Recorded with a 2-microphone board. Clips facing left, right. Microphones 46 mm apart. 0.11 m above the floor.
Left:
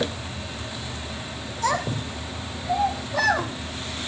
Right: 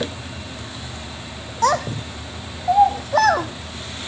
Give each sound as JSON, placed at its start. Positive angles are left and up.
{"t": 1.6, "sound": "a child speaking", "side_deg": -65, "distance_m": 2.5}